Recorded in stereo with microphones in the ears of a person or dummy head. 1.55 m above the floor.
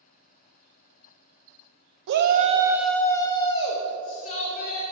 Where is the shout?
65° right (ahead or behind), 0.6 m; by 4.8 s 45° left (ahead or behind), 1.8 m.